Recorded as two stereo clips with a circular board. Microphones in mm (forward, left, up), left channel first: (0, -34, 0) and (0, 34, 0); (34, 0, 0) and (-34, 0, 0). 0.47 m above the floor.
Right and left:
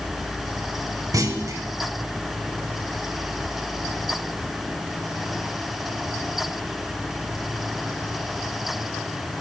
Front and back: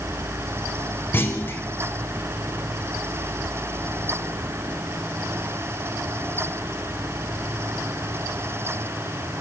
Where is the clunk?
55° left, 0.7 m.